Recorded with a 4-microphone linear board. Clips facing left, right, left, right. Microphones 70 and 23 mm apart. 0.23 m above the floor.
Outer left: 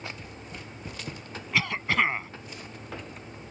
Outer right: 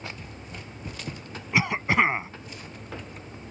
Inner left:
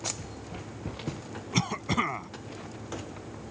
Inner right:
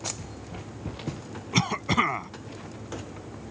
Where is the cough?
20° right (ahead or behind).